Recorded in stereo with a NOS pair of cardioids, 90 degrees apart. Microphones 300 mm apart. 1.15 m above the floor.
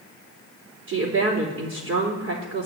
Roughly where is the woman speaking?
Right.